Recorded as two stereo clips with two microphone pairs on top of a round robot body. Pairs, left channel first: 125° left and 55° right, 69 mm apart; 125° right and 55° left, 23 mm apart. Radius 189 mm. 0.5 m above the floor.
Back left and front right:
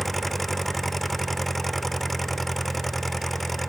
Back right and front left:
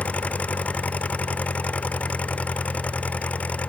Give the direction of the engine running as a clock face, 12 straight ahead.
5 o'clock.